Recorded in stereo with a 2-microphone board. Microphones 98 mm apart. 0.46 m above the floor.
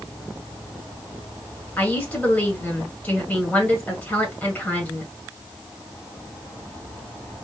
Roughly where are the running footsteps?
No running footsteps in this recording.